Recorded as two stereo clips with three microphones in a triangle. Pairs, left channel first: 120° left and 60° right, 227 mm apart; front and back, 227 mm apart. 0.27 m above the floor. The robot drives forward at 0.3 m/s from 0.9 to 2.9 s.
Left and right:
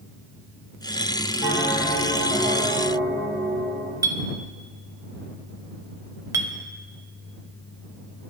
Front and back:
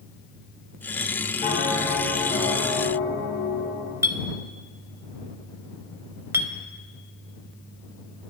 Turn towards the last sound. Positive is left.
turn(degrees=-115)